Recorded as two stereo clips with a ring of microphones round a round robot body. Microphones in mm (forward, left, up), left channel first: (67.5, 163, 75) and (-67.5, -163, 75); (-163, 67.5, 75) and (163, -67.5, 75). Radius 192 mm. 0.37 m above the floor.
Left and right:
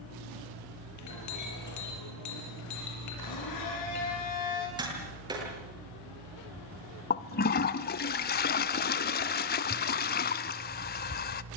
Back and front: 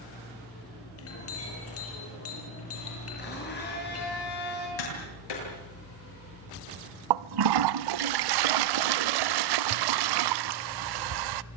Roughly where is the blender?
Left.